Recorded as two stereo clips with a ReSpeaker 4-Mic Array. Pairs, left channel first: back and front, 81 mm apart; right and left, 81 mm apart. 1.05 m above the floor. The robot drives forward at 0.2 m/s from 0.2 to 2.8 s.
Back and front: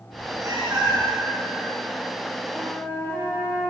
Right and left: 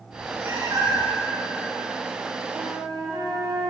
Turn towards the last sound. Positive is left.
turn(degrees=95)